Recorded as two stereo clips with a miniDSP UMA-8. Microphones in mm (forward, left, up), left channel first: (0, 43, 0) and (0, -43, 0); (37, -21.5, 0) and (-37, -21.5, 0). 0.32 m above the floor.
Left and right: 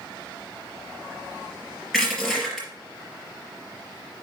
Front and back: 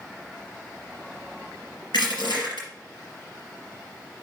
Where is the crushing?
5° right, 4 m.